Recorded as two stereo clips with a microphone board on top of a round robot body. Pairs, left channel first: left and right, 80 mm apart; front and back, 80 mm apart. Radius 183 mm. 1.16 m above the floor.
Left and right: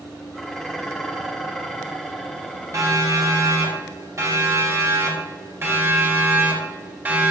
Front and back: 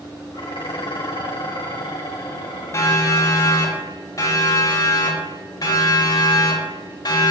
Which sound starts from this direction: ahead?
Dishes clattering, at 0.3 s.